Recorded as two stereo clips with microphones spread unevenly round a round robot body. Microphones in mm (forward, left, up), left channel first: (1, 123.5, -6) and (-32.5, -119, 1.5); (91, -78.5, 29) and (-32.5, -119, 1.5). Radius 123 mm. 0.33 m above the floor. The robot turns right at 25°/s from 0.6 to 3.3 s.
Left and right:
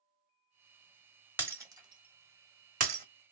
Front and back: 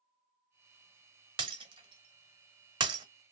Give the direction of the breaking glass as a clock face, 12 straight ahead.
6 o'clock.